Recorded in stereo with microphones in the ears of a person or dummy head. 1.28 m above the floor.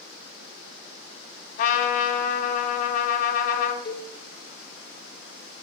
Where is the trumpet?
45° left (ahead or behind), 2 m.